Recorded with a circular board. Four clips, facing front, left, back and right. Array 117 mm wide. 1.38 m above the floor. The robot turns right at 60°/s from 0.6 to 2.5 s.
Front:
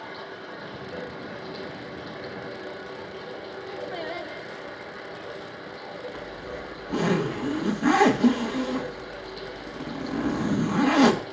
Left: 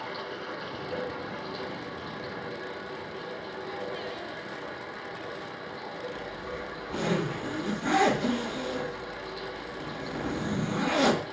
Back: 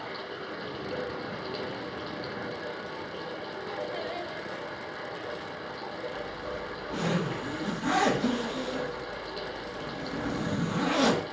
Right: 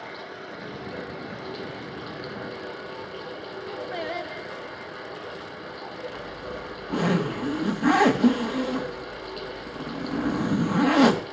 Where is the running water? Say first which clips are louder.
Left 1 dB, even; 135° left, 6 m; by 11.3 s 115° right, 6 m.